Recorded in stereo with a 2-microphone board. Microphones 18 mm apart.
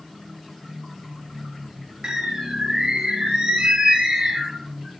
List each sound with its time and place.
2.0 s a bird: 70° right (ahead or behind), 0.7 m